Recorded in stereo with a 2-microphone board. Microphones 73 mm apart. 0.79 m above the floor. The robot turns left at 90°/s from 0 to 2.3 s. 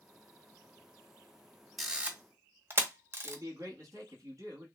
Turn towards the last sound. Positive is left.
turn(degrees=-50)  # may be behind; listen again after turning